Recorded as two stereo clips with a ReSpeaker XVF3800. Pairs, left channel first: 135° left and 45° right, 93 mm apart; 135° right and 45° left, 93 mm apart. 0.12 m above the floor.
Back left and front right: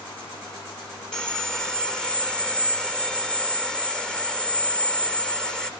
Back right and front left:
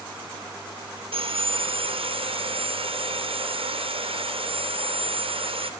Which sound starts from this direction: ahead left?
Sawing, at 1.1 s.